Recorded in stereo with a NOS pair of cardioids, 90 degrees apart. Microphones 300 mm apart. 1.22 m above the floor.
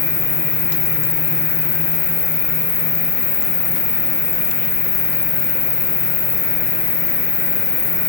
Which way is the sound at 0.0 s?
60° left.